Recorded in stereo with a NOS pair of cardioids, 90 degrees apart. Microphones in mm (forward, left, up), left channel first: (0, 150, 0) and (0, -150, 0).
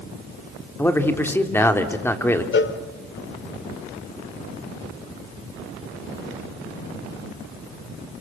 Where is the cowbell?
40° left, 2.5 m.